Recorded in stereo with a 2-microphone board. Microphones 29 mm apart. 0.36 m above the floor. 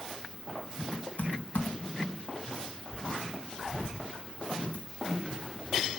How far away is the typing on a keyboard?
About 3 m.